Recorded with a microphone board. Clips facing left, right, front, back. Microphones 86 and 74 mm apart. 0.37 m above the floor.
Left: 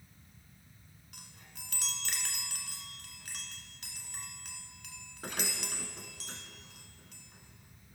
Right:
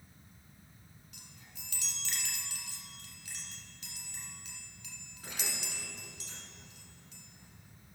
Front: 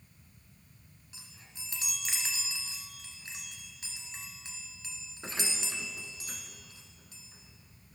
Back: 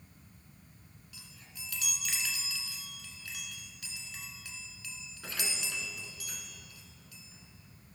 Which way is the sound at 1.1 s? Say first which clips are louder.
Left 4 dB, even; 65° left.